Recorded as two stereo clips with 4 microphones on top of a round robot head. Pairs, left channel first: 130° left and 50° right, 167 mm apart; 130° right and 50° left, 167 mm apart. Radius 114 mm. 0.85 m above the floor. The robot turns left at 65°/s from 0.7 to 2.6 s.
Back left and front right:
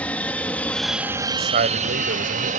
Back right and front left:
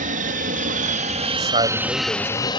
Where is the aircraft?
50° left; by 2.6 s 75° right.